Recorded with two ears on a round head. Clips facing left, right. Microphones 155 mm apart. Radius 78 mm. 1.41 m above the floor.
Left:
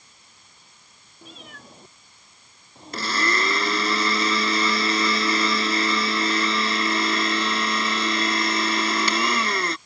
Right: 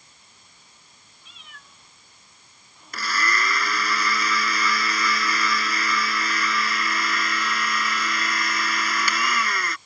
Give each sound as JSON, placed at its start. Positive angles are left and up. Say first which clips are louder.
{"t": 1.2, "sound": "a cat meowing", "louder": "left 10 dB", "side_deg": 40}
{"t": 2.9, "sound": "a blender", "louder": "left 2 dB", "side_deg": 25}